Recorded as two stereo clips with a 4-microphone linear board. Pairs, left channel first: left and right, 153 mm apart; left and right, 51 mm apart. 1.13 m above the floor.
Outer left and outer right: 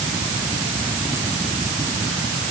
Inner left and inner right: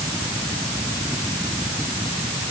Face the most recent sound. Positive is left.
No sound to turn to.